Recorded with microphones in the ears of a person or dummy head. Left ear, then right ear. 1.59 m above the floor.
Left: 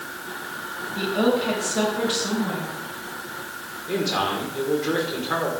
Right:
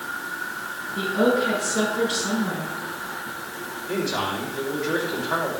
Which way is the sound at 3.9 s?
85° left.